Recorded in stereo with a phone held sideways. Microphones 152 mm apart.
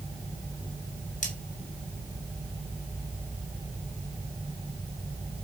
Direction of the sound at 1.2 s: 55° left (ahead or behind).